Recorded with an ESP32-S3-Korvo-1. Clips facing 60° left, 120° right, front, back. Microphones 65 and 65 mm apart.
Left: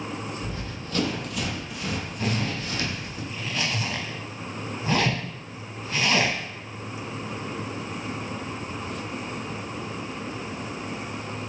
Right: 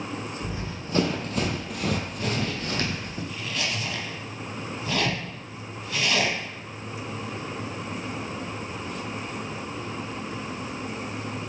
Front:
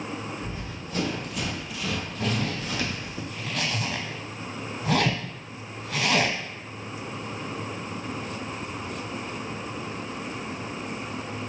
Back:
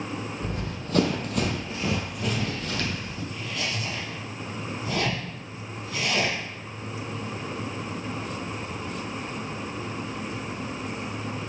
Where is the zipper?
Straight ahead, 0.8 m.